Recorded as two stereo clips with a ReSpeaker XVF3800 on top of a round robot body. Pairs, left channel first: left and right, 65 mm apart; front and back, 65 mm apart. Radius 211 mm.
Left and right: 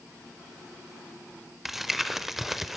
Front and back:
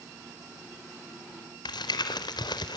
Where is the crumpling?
Straight ahead, 0.5 m.